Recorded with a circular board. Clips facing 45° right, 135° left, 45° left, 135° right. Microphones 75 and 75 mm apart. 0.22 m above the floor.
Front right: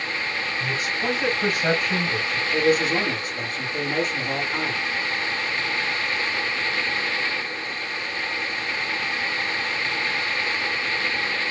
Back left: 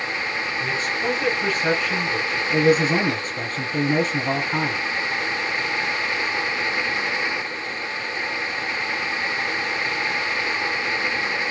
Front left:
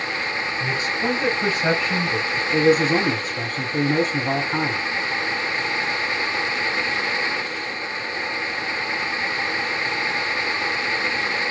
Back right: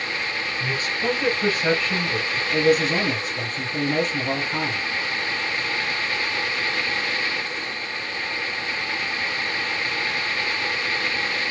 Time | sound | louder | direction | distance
0.6 | a man speaking | back left 2 dB, front left 1 dB | 20° left | 1.1 m
2.5 | a man speaking | back left 3 dB, front left 2 dB | 95° left | 2.5 m